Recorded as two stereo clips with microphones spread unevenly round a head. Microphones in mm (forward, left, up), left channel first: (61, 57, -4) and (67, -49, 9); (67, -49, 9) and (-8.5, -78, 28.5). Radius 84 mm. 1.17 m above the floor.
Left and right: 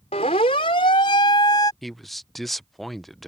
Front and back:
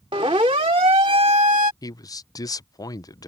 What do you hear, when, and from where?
0.1 s a siren: 145° left; by 1.7 s 160° left
1.8 s a man speaking: 10° left